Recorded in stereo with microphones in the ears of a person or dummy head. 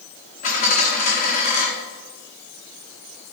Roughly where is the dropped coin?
Left.